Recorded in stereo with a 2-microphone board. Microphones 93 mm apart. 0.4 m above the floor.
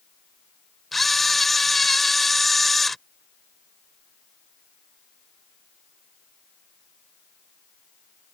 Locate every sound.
0.9 s a camera shutter: centre (ahead or behind)